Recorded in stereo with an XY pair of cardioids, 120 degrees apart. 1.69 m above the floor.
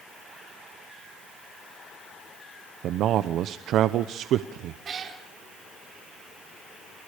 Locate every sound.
2.8 s a man speaking: 70° right, 0.8 m
4.8 s a cat meowing: 45° right, 3 m